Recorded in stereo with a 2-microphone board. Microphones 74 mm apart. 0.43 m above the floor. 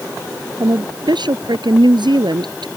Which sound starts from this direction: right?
A woman speaking, at 0.6 s.